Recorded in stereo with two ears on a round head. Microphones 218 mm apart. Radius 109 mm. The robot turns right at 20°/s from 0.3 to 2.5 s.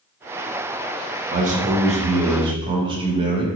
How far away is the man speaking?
About 0.6 m.